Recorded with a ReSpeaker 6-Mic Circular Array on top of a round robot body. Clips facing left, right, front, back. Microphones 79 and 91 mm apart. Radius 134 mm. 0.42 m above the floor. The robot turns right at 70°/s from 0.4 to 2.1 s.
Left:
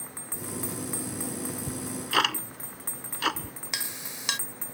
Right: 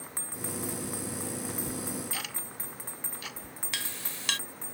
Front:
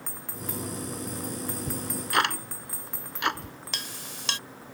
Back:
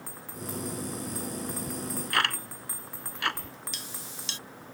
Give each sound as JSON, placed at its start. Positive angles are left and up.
{"t": 1.7, "sound": "ticking", "azimuth_deg": 40}
{"t": 3.7, "sound": "a clink", "azimuth_deg": 20}